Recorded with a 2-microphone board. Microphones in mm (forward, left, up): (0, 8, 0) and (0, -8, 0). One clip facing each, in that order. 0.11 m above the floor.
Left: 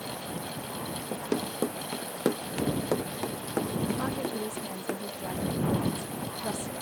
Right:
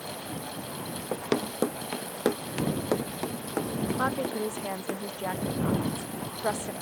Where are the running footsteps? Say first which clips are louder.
Right 3 dB; 45° right (ahead or behind); by 5.0 s centre (ahead or behind).